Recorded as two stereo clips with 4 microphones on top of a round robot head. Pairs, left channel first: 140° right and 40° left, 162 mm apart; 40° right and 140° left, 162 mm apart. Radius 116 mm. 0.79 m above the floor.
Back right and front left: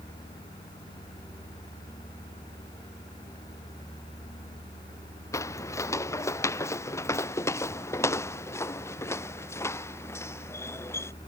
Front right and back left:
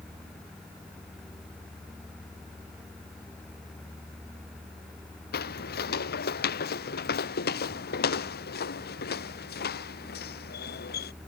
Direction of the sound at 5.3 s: 70° right.